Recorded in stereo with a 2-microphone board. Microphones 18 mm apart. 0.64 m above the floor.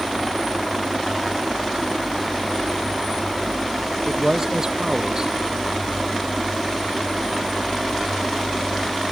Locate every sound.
4.1 s a man speaking: 30° right (ahead or behind)